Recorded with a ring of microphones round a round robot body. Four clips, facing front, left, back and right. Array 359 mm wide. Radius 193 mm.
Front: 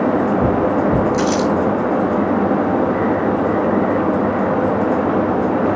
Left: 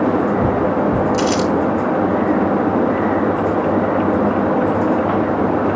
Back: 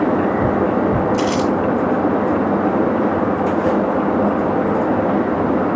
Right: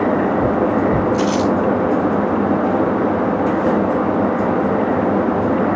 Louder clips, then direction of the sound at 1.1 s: Even, front 1 dB; 75° left.